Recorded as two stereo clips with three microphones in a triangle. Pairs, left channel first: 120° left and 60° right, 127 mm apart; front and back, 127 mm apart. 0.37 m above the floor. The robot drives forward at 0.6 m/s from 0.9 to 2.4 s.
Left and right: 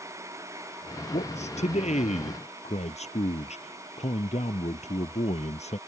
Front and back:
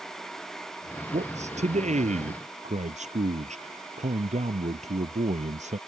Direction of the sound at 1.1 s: 150° left.